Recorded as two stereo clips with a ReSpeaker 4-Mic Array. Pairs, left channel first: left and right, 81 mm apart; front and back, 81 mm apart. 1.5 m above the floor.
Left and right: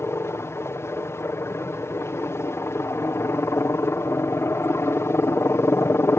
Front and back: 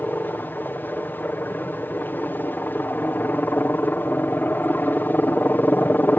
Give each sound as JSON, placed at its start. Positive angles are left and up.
{"t": 0.0, "sound": "a helicopter", "azimuth_deg": 55}